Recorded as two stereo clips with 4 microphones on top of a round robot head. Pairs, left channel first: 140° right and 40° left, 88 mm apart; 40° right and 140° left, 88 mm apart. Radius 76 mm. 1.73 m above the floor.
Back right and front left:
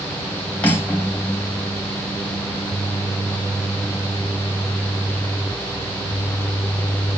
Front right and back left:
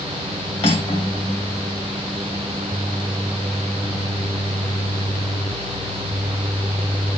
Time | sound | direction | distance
0.6 | cutlery clinking | 65° right | 3 m